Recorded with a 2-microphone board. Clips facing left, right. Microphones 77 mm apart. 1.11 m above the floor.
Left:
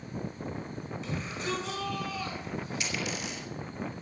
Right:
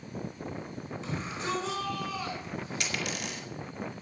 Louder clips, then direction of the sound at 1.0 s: Right 1 dB; 40° right (ahead or behind).